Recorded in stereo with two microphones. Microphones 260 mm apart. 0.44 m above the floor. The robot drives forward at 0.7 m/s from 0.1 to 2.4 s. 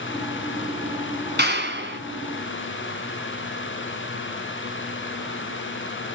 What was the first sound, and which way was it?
A clap, 40° right (ahead or behind).